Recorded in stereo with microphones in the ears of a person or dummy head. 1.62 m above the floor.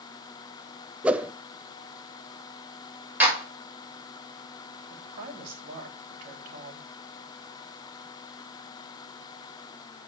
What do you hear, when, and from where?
1.0 s a whoosh: 5° right (ahead or behind), 0.6 m
3.2 s a clap: 15° right (ahead or behind), 6 m
4.9 s a woman speaking: 50° right (ahead or behind), 3 m